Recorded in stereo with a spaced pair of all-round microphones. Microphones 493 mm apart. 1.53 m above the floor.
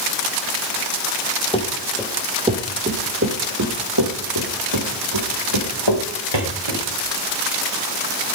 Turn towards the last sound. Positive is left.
turn(degrees=-70)  # may be behind; listen again after turning